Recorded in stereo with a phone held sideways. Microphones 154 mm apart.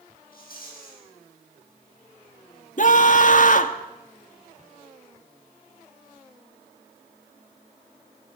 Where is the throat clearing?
No throat clearing in this recording.